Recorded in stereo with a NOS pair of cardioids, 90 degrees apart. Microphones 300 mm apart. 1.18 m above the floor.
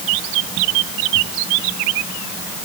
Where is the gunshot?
I don't hear a gunshot.